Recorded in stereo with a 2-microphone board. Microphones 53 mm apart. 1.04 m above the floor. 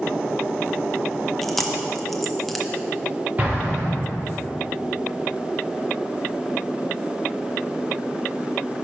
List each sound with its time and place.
1.4 s chewing: 5° left (ahead or behind), 0.6 m
3.4 s an explosion: 35° right (ahead or behind), 1.6 m